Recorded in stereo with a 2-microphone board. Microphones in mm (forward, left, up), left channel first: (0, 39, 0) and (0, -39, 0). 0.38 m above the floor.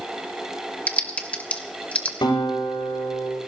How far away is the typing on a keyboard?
About 1.6 m.